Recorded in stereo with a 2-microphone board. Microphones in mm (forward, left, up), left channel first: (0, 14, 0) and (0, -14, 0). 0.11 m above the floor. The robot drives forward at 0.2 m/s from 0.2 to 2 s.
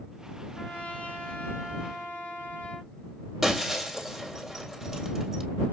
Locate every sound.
0.6 s a trumpet: 65° left (ahead or behind), 2.0 m; by 2.9 s 60° left (ahead or behind), 2 m
3.4 s breaking glass: 10° right (ahead or behind), 1.5 m